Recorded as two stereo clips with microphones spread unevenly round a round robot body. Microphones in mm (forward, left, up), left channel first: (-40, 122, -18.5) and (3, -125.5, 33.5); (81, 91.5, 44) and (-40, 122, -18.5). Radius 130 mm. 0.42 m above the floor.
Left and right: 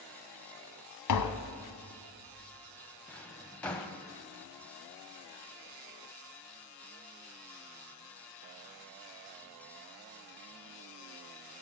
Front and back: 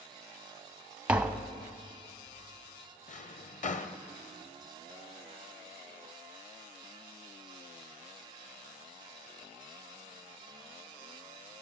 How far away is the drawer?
About 0.8 m.